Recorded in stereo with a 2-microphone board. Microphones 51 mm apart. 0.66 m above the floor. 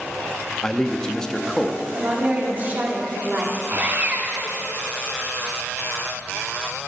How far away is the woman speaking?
About 1.7 m.